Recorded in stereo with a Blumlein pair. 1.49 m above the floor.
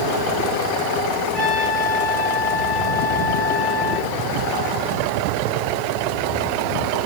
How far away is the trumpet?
About 10 m.